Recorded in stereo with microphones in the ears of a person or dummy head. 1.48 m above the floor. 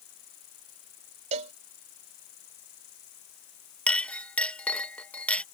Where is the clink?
10° left (ahead or behind).